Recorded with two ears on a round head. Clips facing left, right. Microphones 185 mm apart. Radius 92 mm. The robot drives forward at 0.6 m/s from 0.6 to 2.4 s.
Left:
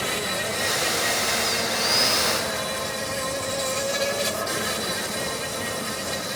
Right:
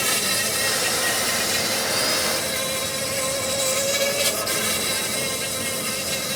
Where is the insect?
60° right (ahead or behind); by 6.4 s 40° right (ahead or behind).